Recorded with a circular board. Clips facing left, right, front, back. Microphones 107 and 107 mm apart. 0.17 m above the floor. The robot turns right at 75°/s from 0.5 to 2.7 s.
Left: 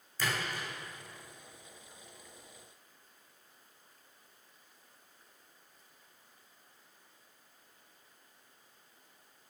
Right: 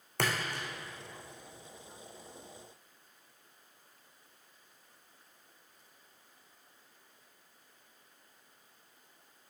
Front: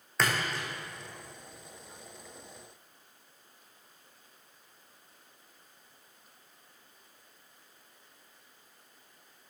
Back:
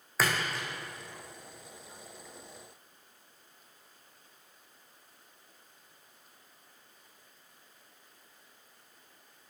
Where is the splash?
95° right, 2 m; by 0.7 s 80° right, 2 m.